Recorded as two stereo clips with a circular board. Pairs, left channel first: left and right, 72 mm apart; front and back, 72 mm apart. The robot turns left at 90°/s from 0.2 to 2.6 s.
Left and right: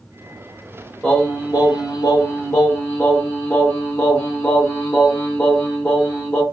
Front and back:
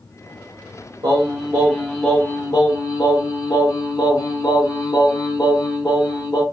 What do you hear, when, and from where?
1.0 s singing: 175° left, 2 m; by 6.4 s 35° left, 2 m